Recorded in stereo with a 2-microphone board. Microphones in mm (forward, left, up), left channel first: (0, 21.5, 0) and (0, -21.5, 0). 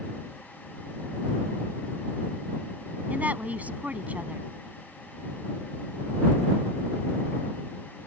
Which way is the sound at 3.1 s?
40° right (ahead or behind).